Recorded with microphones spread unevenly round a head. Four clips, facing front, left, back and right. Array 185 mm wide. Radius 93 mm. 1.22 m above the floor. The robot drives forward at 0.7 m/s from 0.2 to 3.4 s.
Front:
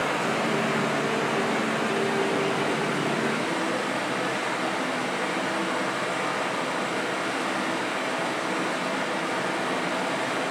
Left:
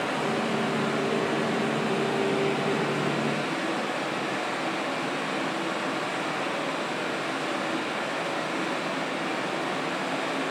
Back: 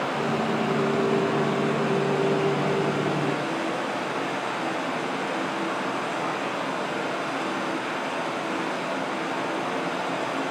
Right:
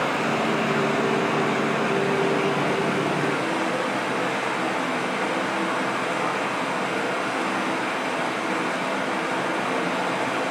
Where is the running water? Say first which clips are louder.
Right 4 dB, even; 75° right, 9 m; by 10.5 s 90° right, 8.5 m.